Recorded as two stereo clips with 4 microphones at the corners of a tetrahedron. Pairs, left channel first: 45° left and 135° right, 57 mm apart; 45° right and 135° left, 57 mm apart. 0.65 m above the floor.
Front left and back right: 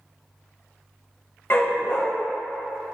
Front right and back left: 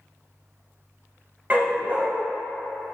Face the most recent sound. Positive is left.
turn(degrees=80)